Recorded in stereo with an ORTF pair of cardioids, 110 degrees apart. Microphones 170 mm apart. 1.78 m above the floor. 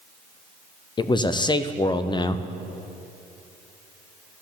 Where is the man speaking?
25° left, 0.8 m.